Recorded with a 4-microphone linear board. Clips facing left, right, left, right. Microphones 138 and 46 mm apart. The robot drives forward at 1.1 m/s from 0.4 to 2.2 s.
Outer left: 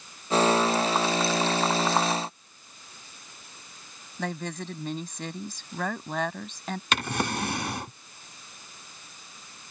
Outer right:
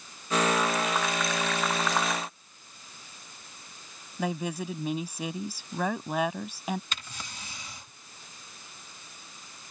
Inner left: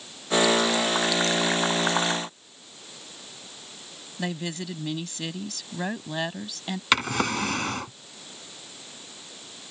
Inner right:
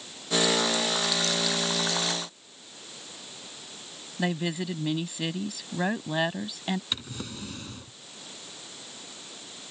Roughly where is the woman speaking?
Centre.